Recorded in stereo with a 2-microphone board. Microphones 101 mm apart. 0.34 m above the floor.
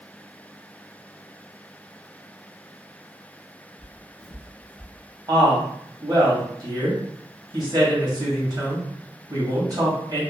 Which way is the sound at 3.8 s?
10° right (ahead or behind).